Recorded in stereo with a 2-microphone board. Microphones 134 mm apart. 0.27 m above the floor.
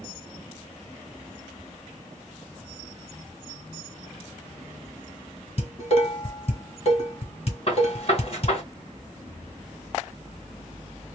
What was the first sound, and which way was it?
Dishes clattering, 50° left (ahead or behind).